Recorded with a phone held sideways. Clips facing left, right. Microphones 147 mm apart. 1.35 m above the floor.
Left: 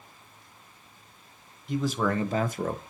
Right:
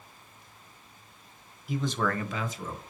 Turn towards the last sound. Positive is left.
turn(degrees=80)